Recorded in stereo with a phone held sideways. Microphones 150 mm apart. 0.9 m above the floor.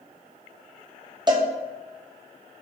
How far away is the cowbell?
About 1.1 m.